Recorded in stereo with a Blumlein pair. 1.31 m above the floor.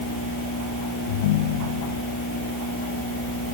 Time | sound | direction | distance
1.1 | a ringtone | 55° left | ?